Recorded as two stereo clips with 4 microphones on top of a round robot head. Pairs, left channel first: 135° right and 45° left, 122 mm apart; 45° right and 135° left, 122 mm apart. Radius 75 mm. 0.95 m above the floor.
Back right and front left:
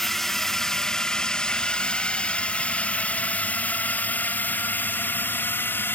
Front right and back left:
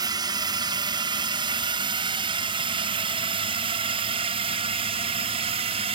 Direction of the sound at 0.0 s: 140° left.